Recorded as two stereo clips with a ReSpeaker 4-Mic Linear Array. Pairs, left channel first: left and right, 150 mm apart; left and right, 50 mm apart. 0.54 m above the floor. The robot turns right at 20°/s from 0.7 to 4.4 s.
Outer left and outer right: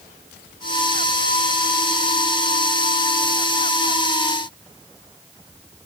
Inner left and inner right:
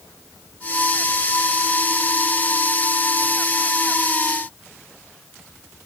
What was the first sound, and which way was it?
Only background noise.